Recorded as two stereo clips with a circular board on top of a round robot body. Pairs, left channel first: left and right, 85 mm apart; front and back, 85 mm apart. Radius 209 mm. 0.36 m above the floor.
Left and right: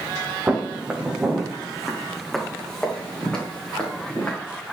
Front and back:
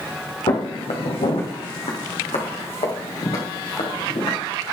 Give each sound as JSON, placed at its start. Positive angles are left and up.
{"t": 0.5, "sound": "footsteps", "azimuth_deg": -20, "distance_m": 1.8}